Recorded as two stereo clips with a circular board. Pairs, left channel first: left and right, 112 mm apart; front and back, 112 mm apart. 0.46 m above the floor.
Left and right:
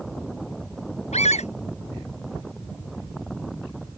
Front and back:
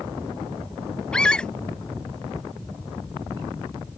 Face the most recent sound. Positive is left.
turn(degrees=80)